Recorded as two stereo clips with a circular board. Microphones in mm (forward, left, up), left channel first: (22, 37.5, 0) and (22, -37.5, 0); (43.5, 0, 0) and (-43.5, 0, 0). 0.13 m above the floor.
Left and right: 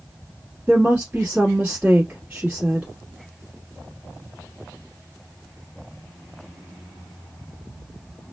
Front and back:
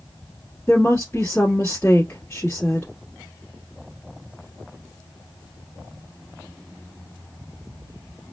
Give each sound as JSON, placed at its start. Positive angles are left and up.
{"t": 0.7, "sound": "a woman speaking", "azimuth_deg": -40, "distance_m": 1.2}